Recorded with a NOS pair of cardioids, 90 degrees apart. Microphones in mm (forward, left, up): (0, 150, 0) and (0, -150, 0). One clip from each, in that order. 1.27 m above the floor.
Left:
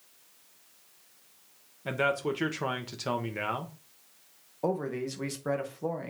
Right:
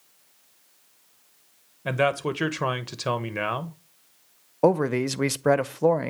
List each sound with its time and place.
1.9 s a man speaking: 35° right, 1.1 m
4.6 s a man speaking: 55° right, 0.6 m